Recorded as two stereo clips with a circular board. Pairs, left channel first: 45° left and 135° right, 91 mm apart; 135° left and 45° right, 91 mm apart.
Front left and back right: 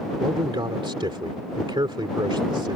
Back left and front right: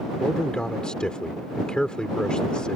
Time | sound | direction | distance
0.2 | a man speaking | 145° right | ?